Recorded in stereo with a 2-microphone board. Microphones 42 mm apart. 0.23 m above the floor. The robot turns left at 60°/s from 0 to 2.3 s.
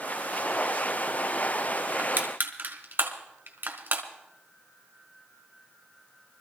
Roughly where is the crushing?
Right.